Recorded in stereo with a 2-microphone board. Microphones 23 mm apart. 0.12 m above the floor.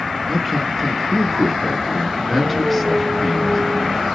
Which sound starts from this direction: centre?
A man speaking, at 0.3 s.